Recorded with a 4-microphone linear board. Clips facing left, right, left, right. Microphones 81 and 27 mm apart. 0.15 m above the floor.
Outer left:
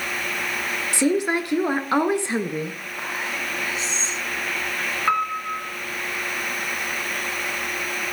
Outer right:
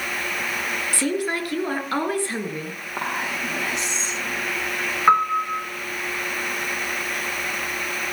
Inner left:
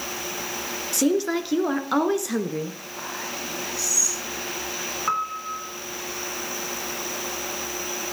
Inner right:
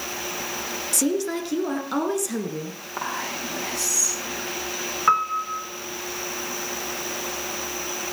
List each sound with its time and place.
0.9 s a woman speaking: 20° left (ahead or behind), 2.5 m
3.0 s whispering: 75° right (ahead or behind), 8.5 m
5.1 s a piano: 30° right (ahead or behind), 1.8 m